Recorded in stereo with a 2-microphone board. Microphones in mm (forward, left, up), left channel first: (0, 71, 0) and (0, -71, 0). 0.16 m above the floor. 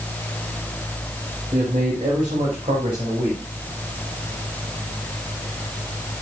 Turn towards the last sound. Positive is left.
turn(degrees=-45)  # may be behind; listen again after turning